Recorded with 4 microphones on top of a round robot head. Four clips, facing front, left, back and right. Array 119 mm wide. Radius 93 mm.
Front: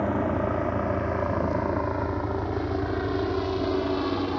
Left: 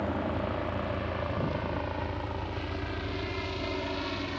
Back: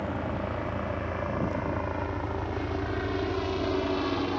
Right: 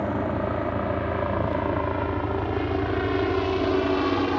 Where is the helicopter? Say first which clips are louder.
Right 5 dB, front 7 dB; 35° right; by 4.4 s 75° right.